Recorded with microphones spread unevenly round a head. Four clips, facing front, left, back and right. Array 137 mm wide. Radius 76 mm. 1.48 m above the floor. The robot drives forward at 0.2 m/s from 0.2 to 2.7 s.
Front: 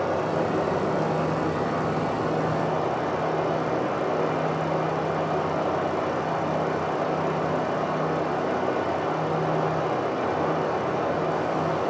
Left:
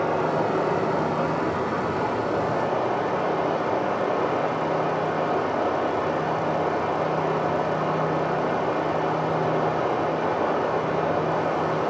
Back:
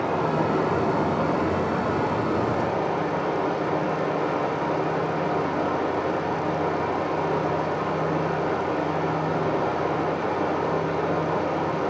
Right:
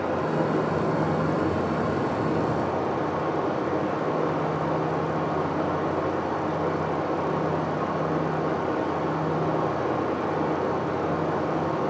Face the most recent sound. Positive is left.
turn(degrees=130)